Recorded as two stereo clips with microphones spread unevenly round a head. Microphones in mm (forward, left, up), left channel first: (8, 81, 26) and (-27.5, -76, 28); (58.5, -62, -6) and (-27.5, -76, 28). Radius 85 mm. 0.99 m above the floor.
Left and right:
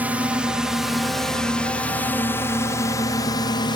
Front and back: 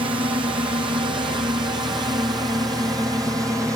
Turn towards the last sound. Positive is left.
turn(degrees=120)